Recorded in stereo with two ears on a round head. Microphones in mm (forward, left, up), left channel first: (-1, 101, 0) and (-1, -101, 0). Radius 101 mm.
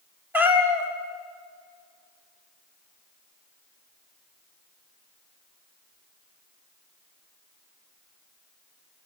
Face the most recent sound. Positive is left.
turn(degrees=-10)  # may be behind; listen again after turning